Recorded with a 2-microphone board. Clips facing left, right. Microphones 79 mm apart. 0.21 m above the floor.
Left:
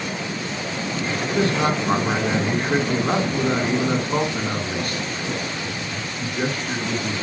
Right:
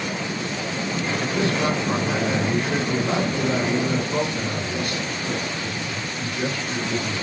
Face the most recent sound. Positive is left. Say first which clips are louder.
# left 3 dB
turn(degrees=45)  # may be behind; listen again after turning